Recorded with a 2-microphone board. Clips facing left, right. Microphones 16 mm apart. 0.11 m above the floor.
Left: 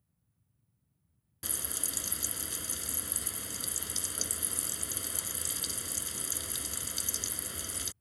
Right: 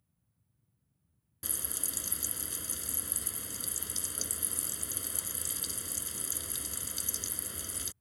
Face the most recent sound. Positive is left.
turn(degrees=10)  # may be behind; listen again after turning